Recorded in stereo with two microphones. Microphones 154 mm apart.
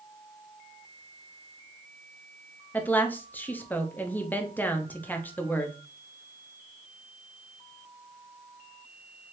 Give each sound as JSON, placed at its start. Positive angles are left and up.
{"t": 2.7, "sound": "a woman speaking", "side_deg": 10, "distance_m": 0.6}